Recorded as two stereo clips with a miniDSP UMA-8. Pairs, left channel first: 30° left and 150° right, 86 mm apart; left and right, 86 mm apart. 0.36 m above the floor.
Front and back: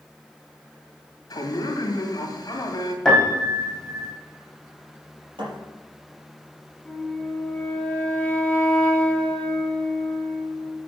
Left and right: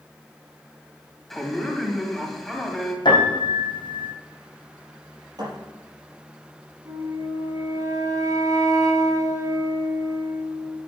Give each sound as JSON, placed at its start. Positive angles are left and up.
{"t": 1.3, "sound": "a man speaking", "azimuth_deg": 5, "distance_m": 2.5}
{"t": 3.0, "sound": "a piano", "azimuth_deg": 115, "distance_m": 3.5}
{"t": 5.4, "sound": "a thud", "azimuth_deg": -125, "distance_m": 5.0}
{"t": 6.8, "sound": "a flute", "azimuth_deg": -45, "distance_m": 1.9}